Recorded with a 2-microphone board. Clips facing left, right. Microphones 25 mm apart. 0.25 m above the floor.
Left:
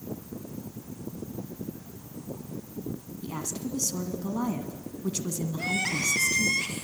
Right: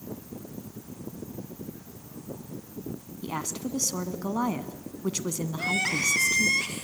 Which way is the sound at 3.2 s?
40° right (ahead or behind).